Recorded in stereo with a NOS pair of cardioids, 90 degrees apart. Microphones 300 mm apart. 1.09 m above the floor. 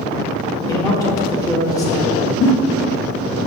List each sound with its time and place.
0.7 s a man speaking: 15° left, 1.8 m
2.4 s a giggle: 50° left, 1.0 m